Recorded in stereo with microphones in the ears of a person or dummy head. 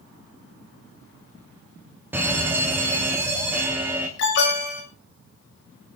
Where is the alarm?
65° left (ahead or behind), 6 m.